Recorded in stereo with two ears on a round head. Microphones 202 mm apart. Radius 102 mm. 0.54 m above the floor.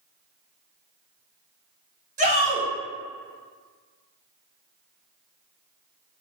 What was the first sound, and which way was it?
A shout, 35° right (ahead or behind).